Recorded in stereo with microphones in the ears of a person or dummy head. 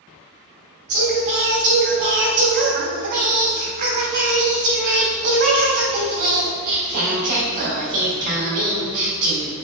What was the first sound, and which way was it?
Singing, 50° right (ahead or behind).